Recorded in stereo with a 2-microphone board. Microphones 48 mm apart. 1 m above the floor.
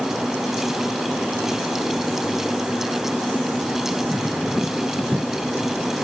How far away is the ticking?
No ticking in this recording.